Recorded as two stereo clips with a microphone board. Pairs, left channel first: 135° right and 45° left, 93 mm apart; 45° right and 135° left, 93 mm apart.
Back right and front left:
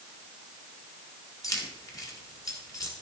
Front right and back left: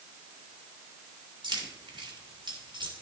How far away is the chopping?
I don't hear chopping.